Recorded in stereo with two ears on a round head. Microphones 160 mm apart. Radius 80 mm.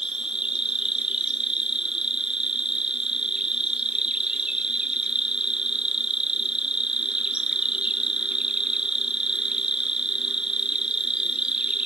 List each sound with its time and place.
0.0 s an insect: 5° right (ahead or behind), 0.8 m